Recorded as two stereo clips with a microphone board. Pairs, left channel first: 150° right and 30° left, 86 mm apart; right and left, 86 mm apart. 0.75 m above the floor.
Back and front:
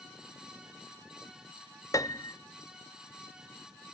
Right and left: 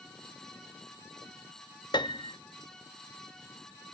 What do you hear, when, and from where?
1.9 s a piano: 105° right, 0.7 m